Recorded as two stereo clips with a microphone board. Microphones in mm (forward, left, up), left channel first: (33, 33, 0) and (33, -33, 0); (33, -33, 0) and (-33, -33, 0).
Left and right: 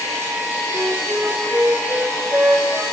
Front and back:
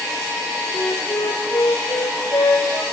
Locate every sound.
0.7 s a flute: 20° right, 2.5 m